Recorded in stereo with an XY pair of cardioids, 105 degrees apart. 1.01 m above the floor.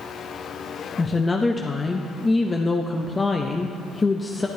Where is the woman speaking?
25° left, 0.7 m.